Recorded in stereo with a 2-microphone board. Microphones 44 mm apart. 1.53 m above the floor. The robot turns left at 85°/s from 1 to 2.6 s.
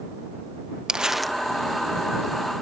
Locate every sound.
0.9 s crumpling: 160° right; by 1.4 s 165° left